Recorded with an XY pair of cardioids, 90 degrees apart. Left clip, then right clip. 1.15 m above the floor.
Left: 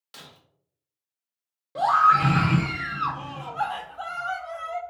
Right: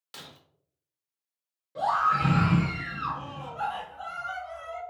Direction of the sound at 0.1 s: 15° right.